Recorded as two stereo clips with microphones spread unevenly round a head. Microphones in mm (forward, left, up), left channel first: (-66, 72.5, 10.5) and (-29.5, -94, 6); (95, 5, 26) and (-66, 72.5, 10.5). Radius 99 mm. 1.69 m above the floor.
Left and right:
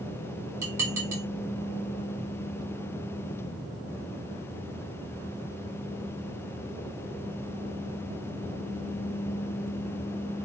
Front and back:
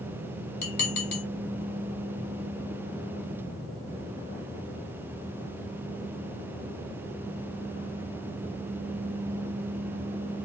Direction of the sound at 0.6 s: Straight ahead.